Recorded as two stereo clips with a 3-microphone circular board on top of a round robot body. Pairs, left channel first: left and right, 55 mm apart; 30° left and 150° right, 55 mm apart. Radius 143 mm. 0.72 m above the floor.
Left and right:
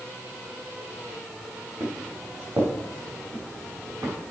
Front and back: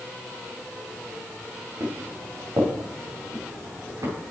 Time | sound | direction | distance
1.8 | footsteps | 125° right | 4 m